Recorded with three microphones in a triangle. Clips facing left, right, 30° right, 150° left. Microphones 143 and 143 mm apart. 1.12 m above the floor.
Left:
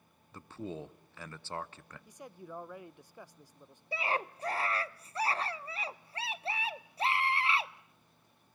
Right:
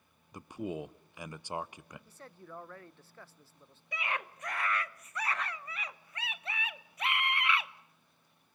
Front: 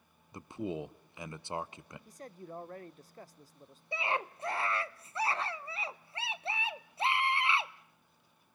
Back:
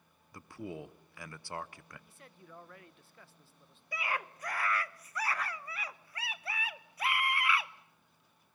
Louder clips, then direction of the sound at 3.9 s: Left 4 dB, front 3 dB; 30° left.